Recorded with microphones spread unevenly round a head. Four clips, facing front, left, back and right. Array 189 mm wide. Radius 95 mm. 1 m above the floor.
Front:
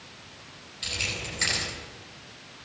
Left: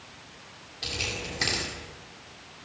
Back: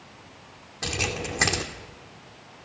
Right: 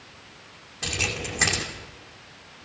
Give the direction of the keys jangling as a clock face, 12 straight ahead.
5 o'clock.